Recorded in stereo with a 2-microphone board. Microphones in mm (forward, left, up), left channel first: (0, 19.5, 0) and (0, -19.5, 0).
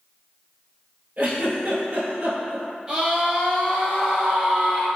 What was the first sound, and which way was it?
A giggle, 55° right (ahead or behind).